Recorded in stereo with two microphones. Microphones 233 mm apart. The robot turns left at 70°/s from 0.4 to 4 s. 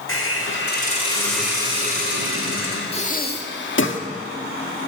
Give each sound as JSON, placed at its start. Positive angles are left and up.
{"t": 0.1, "sound": "a hiss", "azimuth_deg": 65, "distance_m": 6.0}
{"t": 2.9, "sound": "breathing", "azimuth_deg": 150, "distance_m": 1.6}